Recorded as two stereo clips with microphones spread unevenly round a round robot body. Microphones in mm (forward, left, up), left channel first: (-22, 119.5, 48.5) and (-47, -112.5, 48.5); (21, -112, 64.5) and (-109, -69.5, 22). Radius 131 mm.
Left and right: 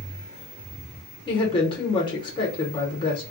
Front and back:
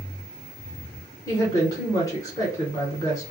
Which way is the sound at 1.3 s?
55° left.